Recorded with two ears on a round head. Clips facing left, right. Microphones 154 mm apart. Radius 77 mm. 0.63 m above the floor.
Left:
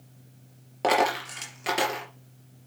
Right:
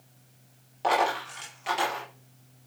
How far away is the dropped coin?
About 4 m.